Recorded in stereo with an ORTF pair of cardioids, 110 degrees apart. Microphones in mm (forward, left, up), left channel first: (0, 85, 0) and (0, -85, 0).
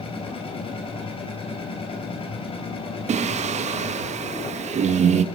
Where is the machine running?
30° left, 5 m.